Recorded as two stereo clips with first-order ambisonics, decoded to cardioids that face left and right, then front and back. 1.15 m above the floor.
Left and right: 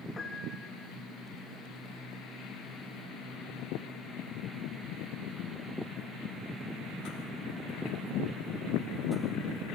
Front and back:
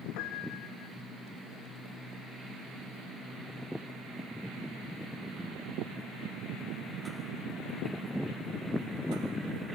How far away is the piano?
About 3 m.